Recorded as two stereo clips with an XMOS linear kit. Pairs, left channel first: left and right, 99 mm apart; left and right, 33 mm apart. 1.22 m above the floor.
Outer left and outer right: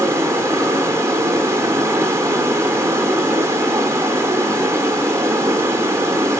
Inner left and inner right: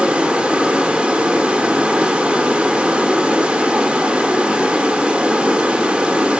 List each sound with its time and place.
0.0 s running water: 30° right (ahead or behind), 0.9 m